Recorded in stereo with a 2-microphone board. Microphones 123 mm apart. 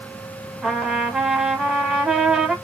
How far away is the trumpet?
About 1.0 m.